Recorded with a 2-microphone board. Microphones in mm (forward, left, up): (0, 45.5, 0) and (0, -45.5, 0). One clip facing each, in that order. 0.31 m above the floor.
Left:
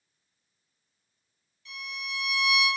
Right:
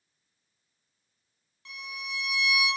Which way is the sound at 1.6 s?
75° right (ahead or behind).